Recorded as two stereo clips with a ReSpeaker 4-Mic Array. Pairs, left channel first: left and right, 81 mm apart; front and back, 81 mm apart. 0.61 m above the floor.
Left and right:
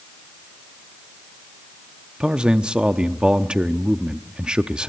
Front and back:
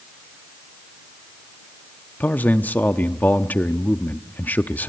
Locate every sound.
2.2 s a man speaking: 30° right, 0.7 m